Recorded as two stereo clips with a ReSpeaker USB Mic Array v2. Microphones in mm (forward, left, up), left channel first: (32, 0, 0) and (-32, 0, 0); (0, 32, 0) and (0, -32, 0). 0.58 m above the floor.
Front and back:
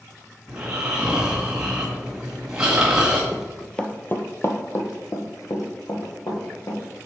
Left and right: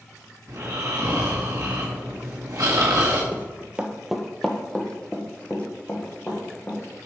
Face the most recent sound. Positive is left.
turn(degrees=25)